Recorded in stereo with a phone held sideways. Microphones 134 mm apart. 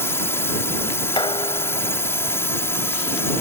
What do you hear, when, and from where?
0.0 s a drone: 20° left (ahead or behind)
1.2 s dishes clattering: 35° left (ahead or behind)